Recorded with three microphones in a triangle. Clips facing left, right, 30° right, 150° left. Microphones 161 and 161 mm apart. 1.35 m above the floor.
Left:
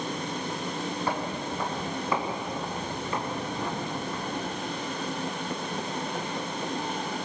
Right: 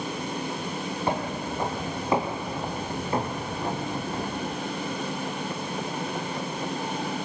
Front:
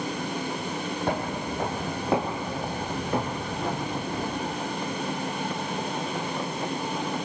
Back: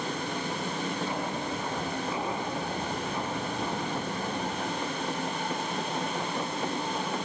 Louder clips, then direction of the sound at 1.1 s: Right 2 dB, front 3 dB; 25° right.